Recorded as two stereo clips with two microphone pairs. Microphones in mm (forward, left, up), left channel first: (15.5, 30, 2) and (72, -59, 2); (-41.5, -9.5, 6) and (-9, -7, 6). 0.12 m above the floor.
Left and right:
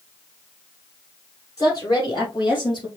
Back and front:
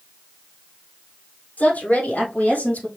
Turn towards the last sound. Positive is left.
turn(degrees=160)